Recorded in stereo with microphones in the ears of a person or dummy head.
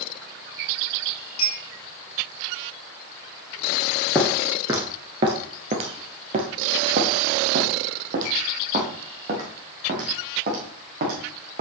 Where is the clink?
35° left (ahead or behind), 5 m.